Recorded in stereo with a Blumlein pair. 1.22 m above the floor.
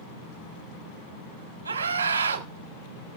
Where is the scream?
70° right, 3 m.